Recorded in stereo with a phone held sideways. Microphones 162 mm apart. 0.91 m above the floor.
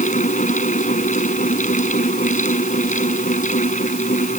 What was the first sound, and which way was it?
A fan, 55° left (ahead or behind).